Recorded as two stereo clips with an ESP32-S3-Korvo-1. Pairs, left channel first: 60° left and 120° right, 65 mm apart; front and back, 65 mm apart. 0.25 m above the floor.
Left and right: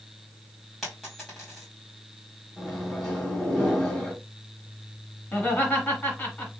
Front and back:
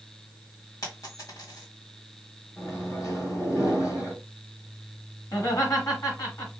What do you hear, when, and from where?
0.8 s a dropped coin: 25° right, 2.0 m
2.6 s a microwave: 20° right, 2.5 m
5.3 s laughter: straight ahead, 2.5 m